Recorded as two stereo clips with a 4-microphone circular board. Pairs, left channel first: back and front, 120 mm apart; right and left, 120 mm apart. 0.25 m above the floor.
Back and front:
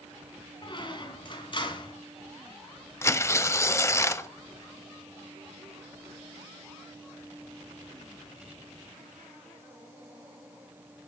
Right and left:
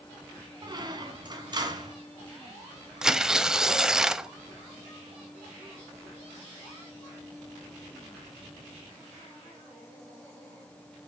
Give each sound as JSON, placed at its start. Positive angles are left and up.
{"t": 0.6, "sound": "a squeak", "azimuth_deg": 140, "distance_m": 1.8}
{"t": 3.0, "sound": "tearing paper", "azimuth_deg": 170, "distance_m": 0.5}